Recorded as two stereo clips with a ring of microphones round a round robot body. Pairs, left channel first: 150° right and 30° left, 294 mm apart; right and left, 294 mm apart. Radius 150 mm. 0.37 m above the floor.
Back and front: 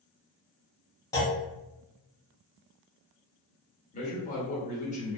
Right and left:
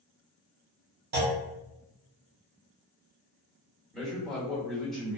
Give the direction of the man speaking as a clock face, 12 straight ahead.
6 o'clock.